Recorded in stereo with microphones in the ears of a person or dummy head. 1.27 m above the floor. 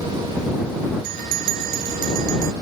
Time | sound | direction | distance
1.0 | a bell | 50° right (ahead or behind) | ?